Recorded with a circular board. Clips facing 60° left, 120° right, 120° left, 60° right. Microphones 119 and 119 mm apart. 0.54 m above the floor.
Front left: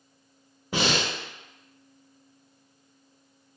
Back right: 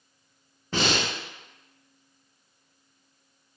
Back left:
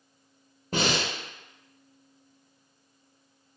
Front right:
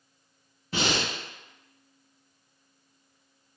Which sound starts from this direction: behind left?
Breathing, at 0.7 s.